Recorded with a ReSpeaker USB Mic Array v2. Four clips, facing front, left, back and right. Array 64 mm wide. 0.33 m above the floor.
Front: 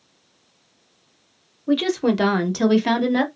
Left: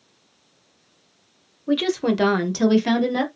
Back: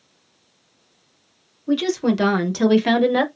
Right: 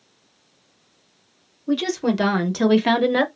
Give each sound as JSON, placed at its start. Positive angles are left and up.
{"t": 1.7, "sound": "a woman speaking", "azimuth_deg": 45, "distance_m": 1.1}